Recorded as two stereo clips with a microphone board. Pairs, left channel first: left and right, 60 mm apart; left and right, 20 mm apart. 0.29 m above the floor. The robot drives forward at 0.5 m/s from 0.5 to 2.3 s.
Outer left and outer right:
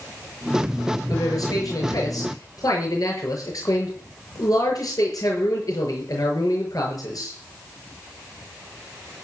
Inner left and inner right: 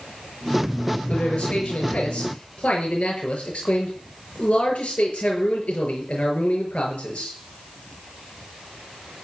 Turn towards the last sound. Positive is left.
turn(degrees=75)  # may be behind; listen again after turning